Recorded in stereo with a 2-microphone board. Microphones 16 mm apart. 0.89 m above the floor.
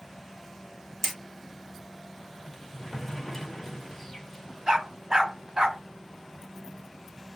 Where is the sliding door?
20° left (ahead or behind), 1.0 m.